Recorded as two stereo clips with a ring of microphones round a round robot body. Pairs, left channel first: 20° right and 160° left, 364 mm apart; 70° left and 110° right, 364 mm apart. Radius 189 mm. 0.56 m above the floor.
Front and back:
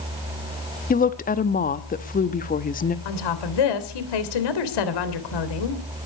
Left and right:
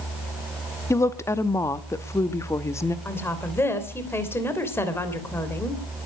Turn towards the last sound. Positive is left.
turn(degrees=-15)